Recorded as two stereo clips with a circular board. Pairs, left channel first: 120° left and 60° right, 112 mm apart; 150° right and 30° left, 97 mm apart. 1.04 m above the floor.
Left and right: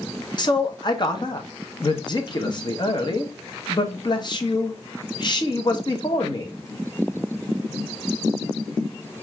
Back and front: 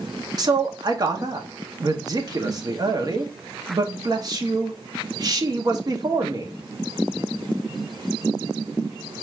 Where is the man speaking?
75° left, 0.8 m.